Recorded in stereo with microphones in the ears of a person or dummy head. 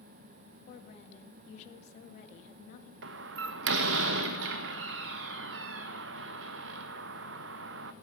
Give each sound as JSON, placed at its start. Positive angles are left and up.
{"t": 0.7, "sound": "a woman speaking", "side_deg": 55, "distance_m": 2.0}
{"t": 3.0, "sound": "a door slam", "side_deg": -80, "distance_m": 0.8}